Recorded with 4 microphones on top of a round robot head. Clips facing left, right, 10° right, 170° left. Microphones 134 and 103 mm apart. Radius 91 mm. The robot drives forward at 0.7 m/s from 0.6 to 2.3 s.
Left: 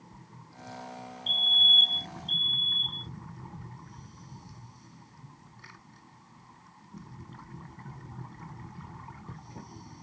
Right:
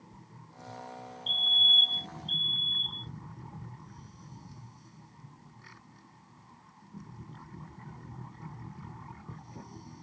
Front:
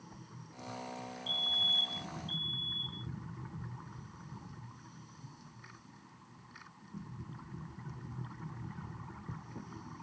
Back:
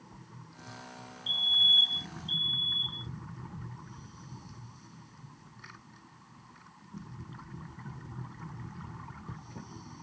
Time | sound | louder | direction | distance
1.3 | a fire alarm | left 2 dB, back 3 dB | 175° right | ?